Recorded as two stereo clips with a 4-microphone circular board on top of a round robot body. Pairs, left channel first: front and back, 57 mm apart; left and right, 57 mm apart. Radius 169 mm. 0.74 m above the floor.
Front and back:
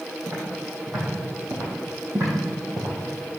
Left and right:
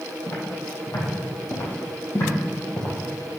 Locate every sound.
0.3 s footsteps: 130° left, 3.5 m; by 3.4 s 145° left, 1.7 m